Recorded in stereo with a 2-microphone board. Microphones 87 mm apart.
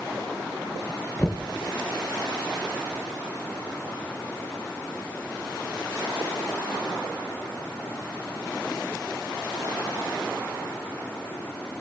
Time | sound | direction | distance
1.2 | knocking | 10° left (ahead or behind) | 1.1 m